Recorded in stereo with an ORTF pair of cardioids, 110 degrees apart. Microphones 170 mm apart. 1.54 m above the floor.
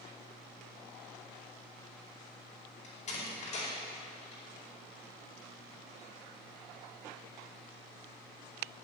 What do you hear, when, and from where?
2.8 s a door slam: 40° left, 4.5 m